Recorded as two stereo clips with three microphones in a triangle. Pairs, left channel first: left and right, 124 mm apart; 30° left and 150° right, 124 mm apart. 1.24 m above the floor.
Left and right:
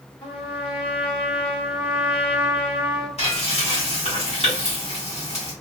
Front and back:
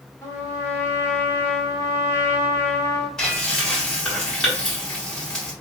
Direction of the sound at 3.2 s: 115° left.